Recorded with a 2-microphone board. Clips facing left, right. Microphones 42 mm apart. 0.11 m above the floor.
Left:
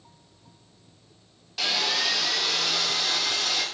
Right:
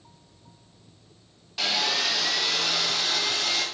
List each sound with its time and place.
1.6 s sawing: 5° right (ahead or behind), 0.8 m